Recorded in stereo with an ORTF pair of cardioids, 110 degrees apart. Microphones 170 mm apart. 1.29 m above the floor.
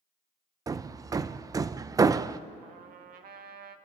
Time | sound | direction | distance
0.7 | hammering | 20° right | 0.6 m
2.6 | a trumpet | 65° right | 1.4 m